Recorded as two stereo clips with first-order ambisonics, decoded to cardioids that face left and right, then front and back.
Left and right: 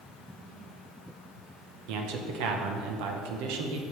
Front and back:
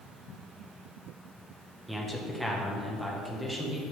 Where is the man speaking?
95° right, 1.2 m.